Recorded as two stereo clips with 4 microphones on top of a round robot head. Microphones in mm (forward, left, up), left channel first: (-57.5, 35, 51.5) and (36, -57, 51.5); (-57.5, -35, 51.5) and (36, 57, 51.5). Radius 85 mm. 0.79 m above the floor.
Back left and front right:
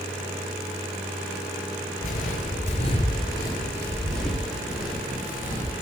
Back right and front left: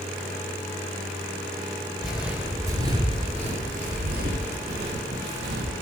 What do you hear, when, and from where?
2.0 s footsteps: 135° left, 1.1 m; by 5.7 s 30° left, 2.0 m